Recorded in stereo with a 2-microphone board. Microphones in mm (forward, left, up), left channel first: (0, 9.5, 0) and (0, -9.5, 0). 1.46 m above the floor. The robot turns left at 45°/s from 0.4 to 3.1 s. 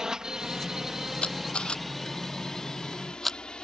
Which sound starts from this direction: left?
A camera shutter, at 1.2 s.